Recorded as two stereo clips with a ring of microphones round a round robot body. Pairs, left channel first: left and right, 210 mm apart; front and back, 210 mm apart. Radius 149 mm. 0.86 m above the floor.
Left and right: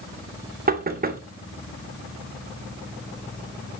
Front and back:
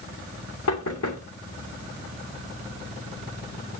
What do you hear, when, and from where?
0.7 s knocking: 40° right, 2.5 m